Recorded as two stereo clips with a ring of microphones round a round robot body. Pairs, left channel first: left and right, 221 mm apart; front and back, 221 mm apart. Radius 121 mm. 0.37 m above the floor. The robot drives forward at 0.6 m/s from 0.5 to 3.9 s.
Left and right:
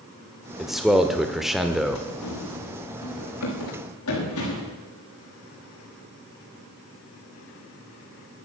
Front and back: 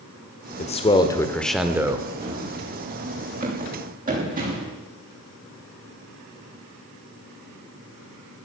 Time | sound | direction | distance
0.6 | a man speaking | 5° right | 1.2 m
2.2 | running footsteps | 110° left | 5 m